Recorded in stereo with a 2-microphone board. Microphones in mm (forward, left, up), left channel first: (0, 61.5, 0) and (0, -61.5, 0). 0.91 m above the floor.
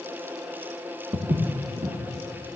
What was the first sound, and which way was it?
Footsteps, 55° right (ahead or behind).